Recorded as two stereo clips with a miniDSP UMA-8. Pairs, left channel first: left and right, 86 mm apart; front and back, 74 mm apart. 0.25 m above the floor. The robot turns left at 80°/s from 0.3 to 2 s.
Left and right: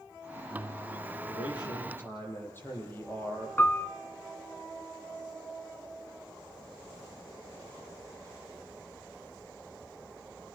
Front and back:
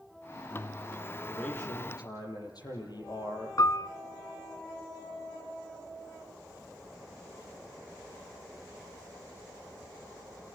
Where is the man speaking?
85° left, 9 m; by 3.5 s 25° left, 9 m.